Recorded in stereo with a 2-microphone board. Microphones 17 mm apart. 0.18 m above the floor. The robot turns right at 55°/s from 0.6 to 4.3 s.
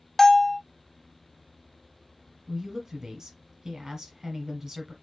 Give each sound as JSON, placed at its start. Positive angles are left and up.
{"t": 0.2, "sound": "a bell", "side_deg": 10, "distance_m": 0.5}
{"t": 2.5, "sound": "a woman speaking", "azimuth_deg": -140, "distance_m": 1.3}